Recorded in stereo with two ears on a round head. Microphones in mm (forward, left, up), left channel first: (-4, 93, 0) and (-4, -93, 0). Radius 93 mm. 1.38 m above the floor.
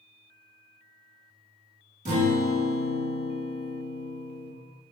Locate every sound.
2.0 s a guitar: 35° right (ahead or behind), 1.3 m